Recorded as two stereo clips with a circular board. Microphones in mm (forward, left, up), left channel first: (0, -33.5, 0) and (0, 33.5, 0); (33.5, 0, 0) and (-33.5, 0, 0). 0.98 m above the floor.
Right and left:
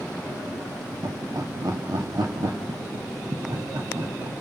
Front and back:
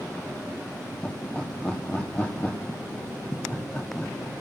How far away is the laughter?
About 2 m.